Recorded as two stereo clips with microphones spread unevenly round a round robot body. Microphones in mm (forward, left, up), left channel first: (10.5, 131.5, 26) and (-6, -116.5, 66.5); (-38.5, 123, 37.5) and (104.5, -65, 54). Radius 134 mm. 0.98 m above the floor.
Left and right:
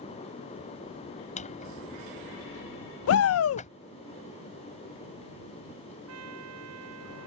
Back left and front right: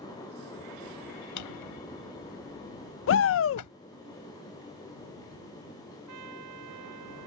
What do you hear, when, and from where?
1.4 s a drawer: 155° left
3.1 s a shout: 105° left
6.1 s a trumpet: 65° right